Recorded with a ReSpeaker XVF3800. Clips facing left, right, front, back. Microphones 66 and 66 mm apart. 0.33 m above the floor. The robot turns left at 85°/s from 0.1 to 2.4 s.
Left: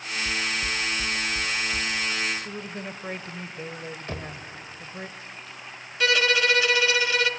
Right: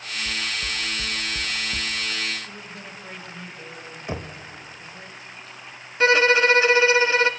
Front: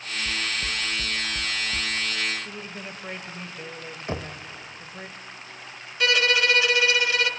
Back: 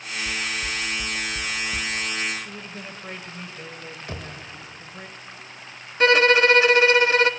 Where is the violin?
135° right, 0.5 m.